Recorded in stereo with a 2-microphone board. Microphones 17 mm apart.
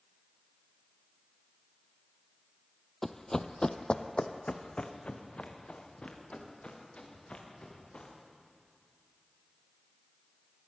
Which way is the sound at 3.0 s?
5° left (ahead or behind).